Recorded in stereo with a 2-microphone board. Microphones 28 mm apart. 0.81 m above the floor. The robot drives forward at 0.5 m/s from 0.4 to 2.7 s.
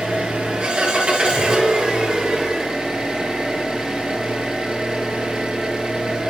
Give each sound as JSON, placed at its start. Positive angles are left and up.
{"t": 0.0, "sound": "an engine running", "side_deg": -40, "distance_m": 5.5}